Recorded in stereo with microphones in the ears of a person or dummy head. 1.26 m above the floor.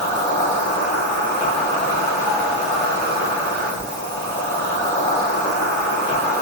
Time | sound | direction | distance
0.0 | an insect | 25° left (ahead or behind) | 1.4 m